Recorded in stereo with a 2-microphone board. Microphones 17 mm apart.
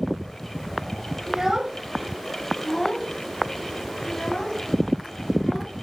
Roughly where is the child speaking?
Right.